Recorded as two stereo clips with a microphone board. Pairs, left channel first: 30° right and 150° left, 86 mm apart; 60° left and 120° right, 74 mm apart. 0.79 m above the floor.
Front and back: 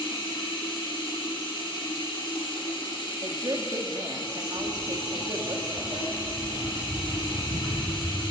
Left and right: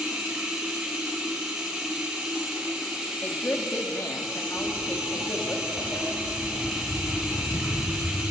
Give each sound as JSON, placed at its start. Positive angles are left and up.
{"t": 0.0, "sound": "running water", "azimuth_deg": -35, "distance_m": 7.5}
{"t": 3.2, "sound": "a woman speaking", "azimuth_deg": 115, "distance_m": 1.7}
{"t": 4.6, "sound": "footsteps", "azimuth_deg": 115, "distance_m": 9.0}